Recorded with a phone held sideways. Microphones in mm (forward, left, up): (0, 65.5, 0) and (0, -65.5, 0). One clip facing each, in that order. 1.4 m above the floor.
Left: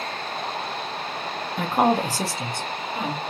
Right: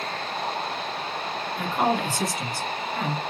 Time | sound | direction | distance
1.6 | a woman speaking | 65° left (ahead or behind) | 0.7 m